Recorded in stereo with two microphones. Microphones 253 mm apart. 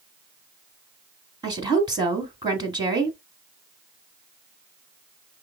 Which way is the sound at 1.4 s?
15° right (ahead or behind).